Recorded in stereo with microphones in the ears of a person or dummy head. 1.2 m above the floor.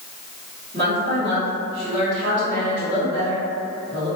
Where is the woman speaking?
25° right (ahead or behind), 1.3 m.